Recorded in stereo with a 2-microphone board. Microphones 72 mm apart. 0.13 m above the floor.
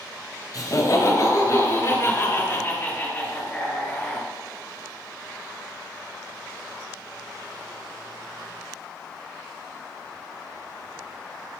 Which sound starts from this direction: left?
Laughter, at 0.5 s.